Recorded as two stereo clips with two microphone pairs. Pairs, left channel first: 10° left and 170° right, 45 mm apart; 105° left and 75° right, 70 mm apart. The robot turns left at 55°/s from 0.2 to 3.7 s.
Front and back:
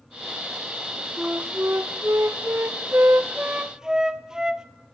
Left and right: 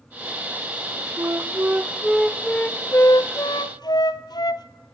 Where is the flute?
110° right, 0.9 m; by 4.7 s 110° left, 0.9 m.